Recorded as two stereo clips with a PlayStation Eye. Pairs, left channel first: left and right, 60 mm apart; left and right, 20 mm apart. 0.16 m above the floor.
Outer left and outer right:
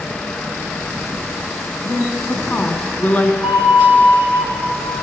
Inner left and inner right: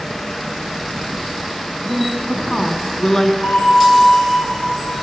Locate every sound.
1.8 s a woman speaking: 25° left (ahead or behind), 1.1 m
3.4 s a flute: 55° left (ahead or behind), 1.9 m